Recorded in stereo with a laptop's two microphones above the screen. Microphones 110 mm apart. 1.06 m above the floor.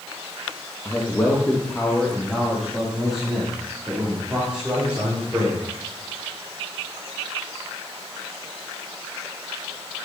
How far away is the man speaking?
About 1.2 m.